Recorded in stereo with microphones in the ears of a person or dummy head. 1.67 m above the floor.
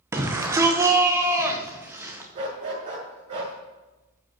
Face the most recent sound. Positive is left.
turn(degrees=-35)  # may be behind; listen again after turning